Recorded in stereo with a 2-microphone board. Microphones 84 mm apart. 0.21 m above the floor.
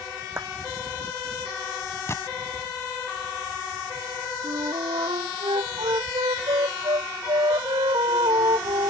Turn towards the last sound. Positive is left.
turn(degrees=-80)